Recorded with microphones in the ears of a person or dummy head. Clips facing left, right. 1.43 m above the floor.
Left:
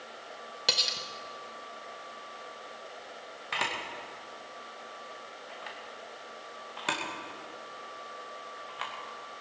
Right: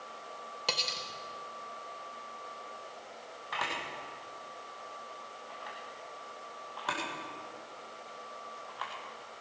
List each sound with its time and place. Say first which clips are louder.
0.7 s cutlery clinking: left 1 dB; 15° left (ahead or behind), 0.9 m
3.5 s a camera shutter: left 2 dB; 30° left (ahead or behind), 2 m